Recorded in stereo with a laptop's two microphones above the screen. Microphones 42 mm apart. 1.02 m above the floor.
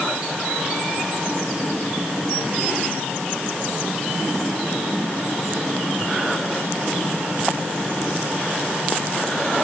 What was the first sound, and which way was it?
Only background noise.